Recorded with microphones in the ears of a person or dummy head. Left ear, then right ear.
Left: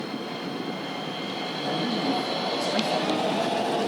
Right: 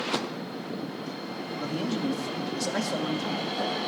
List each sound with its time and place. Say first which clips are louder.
1.5 s a man speaking: left 3 dB; 5° right (ahead or behind), 2 m